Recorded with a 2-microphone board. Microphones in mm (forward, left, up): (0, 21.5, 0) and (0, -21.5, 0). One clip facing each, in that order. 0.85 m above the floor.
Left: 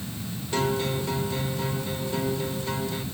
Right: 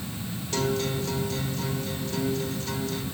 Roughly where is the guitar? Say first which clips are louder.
Left 1 dB; centre.